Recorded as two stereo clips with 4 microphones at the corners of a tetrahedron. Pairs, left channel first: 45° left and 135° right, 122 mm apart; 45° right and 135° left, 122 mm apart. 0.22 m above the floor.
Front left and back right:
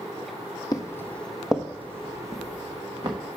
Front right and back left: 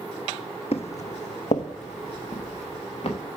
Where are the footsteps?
10° right, 0.6 m; by 3.2 s 85° right, 1.5 m.